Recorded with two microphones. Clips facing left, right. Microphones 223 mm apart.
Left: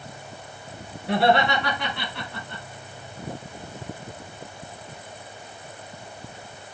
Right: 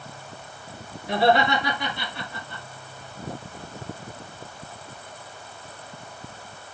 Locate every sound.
1.1 s laughter: 75° left (ahead or behind), 5 m; by 2.6 s 70° left (ahead or behind), 4.5 m